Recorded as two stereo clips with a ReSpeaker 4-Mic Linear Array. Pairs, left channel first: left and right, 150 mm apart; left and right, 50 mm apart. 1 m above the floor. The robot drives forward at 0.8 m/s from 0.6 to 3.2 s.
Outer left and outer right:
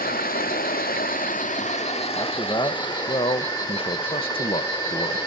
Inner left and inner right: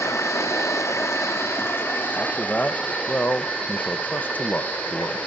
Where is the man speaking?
25° left (ahead or behind), 1.5 m; by 5.2 s 35° left (ahead or behind), 1.1 m.